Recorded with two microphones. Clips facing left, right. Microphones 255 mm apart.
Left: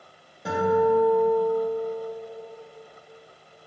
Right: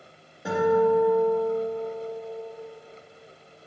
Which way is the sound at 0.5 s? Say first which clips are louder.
Right 1 dB; centre (ahead or behind).